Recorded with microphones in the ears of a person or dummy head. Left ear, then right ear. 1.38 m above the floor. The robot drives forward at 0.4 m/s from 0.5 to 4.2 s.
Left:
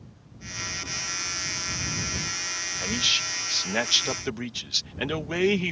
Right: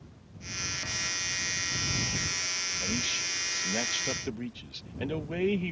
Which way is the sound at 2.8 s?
45° left (ahead or behind).